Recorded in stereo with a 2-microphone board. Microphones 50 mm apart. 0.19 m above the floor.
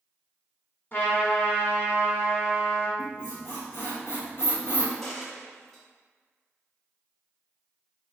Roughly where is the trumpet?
Left.